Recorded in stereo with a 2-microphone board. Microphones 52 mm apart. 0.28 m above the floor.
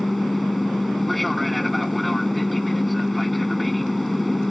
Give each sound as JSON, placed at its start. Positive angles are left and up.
{"t": 0.0, "sound": "an aircraft", "side_deg": 0}